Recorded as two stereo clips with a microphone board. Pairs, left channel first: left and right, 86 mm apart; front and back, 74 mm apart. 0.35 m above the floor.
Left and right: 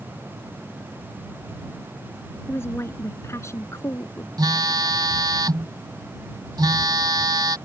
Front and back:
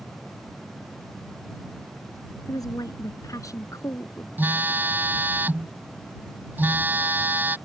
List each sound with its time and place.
2.5 s a woman speaking: 30° left; by 4.3 s 40° left
4.4 s a phone buzzing: 120° right